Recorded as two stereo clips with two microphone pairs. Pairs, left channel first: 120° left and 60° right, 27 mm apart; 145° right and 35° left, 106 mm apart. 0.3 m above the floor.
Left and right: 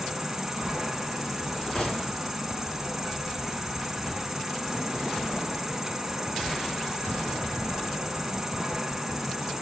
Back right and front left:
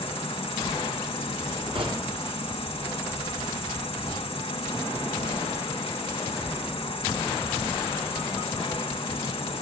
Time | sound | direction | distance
0.0 | an insect | 145° right | 2 m
1.8 | a gunshot | 65° left | 3.5 m